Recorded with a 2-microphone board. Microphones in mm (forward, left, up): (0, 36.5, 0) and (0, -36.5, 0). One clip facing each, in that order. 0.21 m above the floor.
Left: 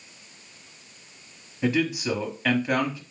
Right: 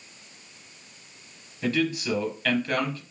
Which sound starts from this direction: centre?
A man speaking, at 1.6 s.